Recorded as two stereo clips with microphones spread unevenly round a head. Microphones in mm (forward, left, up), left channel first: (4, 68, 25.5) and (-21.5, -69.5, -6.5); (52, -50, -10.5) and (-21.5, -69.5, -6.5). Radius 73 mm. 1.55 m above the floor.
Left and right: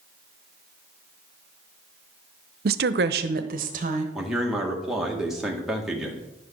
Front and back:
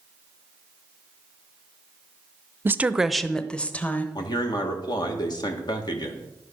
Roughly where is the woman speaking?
Behind right.